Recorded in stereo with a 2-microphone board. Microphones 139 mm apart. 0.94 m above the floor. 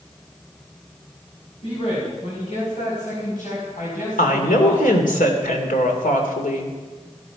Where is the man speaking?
45° left (ahead or behind), 5.5 m; by 4.9 s 85° left, 6.5 m.